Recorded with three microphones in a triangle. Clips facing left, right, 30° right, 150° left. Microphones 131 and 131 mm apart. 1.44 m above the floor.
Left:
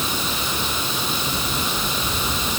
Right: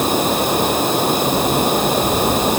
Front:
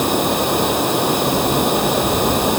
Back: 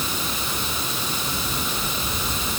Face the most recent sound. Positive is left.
turn(degrees=-55)